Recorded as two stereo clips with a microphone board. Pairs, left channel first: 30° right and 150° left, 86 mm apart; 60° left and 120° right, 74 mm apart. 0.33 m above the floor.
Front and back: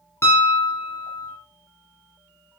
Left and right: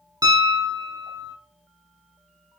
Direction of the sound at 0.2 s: 90° right.